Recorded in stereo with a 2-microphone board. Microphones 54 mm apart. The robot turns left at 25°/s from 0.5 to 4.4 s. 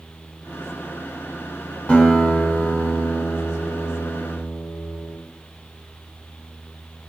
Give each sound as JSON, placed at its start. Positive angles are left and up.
{"t": 1.9, "sound": "a guitar", "side_deg": 25, "distance_m": 1.1}